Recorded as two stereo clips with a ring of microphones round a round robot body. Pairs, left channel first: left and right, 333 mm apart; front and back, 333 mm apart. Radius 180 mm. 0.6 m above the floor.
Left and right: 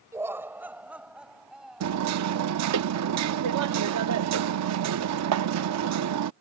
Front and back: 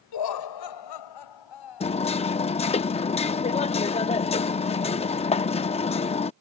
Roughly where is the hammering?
Right.